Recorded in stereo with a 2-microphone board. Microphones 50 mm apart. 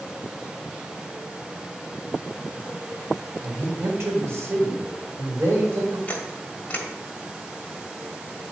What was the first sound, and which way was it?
A man speaking, 70° right (ahead or behind).